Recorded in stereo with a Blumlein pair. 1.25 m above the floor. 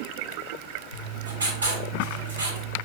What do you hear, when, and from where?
0.9 s writing: 65° right, 2 m